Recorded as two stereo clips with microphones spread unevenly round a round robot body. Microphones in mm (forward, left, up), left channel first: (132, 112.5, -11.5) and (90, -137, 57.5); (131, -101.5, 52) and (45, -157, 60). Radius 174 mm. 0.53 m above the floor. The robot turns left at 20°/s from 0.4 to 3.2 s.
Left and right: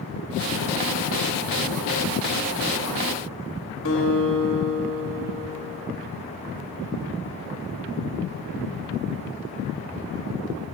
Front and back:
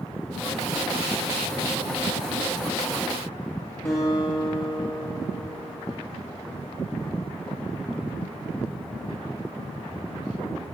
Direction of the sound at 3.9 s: 105° left.